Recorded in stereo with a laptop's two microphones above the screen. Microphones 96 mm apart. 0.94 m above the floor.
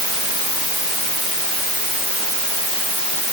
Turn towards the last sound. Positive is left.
No sound to turn to.